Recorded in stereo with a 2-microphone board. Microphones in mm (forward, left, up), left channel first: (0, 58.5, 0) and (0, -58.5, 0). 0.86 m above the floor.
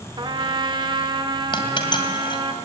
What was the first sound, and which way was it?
A trumpet, 40° right (ahead or behind).